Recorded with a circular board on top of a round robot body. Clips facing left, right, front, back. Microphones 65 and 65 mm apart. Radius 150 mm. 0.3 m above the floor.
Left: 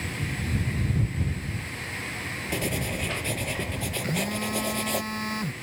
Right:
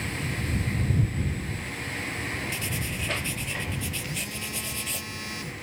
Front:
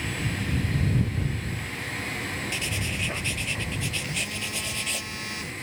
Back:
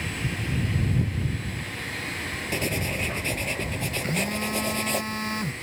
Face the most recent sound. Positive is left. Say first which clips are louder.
# left 7 dB, back 5 dB
turn(degrees=130)